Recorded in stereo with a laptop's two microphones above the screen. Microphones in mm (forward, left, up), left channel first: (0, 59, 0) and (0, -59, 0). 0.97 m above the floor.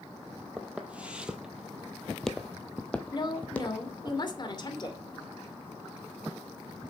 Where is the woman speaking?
40° left (ahead or behind), 2.5 m.